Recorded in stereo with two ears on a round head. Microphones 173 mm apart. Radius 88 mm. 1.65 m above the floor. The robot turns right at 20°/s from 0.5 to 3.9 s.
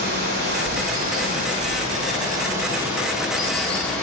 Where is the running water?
60° right, 2.5 m; by 4.0 s 10° left, 2.5 m.